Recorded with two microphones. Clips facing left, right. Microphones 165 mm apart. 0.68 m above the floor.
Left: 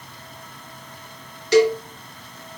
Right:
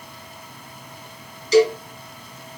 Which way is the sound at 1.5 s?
70° left (ahead or behind).